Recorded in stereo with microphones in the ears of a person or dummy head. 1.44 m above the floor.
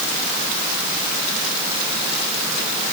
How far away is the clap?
No clap in this recording.